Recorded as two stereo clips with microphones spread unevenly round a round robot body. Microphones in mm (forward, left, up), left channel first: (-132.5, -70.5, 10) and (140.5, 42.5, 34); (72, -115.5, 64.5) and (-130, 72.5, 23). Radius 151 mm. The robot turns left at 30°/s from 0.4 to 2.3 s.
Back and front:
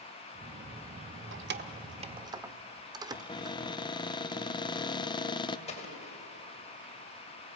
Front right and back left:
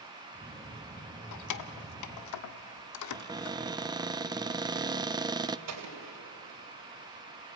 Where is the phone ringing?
I don't hear a phone ringing.